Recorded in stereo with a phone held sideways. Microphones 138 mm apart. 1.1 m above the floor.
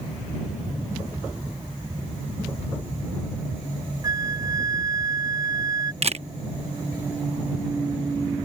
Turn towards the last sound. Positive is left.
turn(degrees=-50)  # may be behind; listen again after turning